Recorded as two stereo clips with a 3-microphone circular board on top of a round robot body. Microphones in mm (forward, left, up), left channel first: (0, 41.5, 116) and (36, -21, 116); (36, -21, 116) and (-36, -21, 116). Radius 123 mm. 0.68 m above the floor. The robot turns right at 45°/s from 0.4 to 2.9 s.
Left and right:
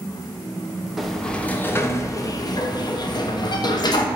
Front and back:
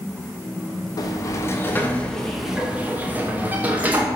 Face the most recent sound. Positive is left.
turn(degrees=115)